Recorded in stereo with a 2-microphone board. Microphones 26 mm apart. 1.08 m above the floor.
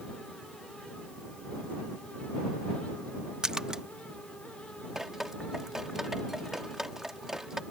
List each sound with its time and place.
3.4 s a splash: 20° right (ahead or behind)
5.0 s dripping: 20° right (ahead or behind)